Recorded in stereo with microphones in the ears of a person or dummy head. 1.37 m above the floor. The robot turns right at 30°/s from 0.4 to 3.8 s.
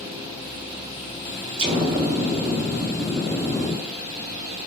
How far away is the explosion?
About 0.7 m.